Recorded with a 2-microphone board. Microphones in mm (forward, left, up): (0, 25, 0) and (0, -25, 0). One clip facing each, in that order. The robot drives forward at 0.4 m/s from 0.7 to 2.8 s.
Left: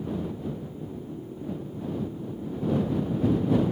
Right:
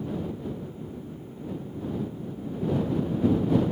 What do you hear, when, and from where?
Only background noise.